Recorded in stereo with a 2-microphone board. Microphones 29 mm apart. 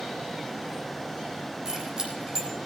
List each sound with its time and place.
1.6 s keys jangling: 30° right (ahead or behind), 4 m